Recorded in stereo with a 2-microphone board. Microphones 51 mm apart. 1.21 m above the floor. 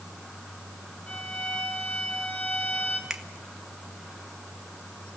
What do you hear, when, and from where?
1.1 s a violin: 30° left (ahead or behind), 3.5 m
3.1 s a finger snap: 10° right (ahead or behind), 1.8 m